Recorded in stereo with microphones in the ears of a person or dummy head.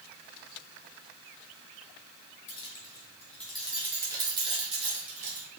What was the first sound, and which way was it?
Keys jangling, 35° left (ahead or behind).